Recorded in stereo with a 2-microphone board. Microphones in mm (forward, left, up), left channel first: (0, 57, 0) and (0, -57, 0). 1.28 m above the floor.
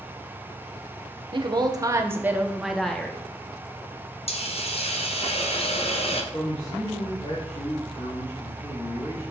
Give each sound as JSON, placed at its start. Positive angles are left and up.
{"t": 1.3, "sound": "a woman speaking", "side_deg": -45, "distance_m": 1.0}
{"t": 4.3, "sound": "a hiss", "side_deg": 60, "distance_m": 0.9}
{"t": 6.3, "sound": "a man speaking", "side_deg": 65, "distance_m": 3.0}